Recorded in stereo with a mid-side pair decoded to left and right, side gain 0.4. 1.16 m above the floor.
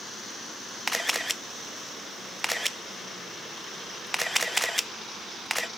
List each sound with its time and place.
0.9 s a camera shutter: straight ahead, 0.6 m